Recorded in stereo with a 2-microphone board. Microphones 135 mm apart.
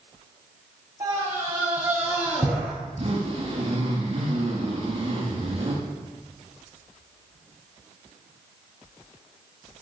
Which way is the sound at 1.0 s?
30° right (ahead or behind).